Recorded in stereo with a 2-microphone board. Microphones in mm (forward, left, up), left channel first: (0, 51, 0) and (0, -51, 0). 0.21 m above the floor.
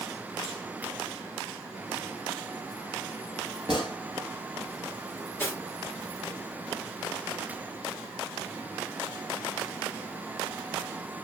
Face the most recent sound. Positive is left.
turn(degrees=20)  # may be behind; listen again after turning